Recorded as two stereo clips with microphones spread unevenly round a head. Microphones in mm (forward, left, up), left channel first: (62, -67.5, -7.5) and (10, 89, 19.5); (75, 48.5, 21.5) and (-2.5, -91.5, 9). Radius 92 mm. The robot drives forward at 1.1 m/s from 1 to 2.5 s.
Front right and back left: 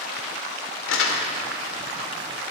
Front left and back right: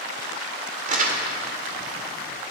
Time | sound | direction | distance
0.9 | crumpling | 80° right | 2.0 m